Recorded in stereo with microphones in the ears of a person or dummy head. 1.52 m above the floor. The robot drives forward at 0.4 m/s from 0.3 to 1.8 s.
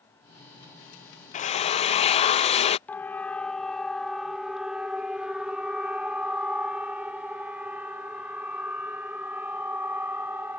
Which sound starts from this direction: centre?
A siren, at 2.9 s.